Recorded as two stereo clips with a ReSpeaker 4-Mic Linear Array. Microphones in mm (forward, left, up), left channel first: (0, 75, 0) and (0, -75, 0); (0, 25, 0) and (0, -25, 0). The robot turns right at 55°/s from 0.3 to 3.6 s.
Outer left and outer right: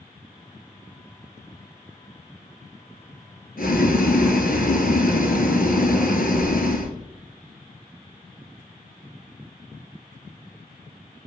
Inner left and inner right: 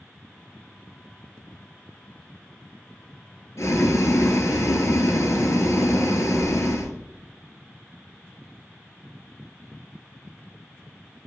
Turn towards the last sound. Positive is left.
turn(degrees=70)  # may be behind; listen again after turning